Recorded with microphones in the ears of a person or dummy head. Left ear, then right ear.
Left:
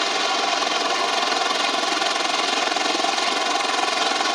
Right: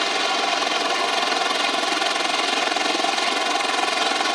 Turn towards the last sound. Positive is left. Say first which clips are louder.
# even
turn(degrees=0)  # may be behind; listen again after turning